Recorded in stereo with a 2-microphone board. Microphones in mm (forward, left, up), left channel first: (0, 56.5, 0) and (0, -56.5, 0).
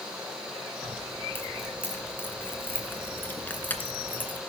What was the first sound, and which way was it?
Keys jangling, 20° left (ahead or behind).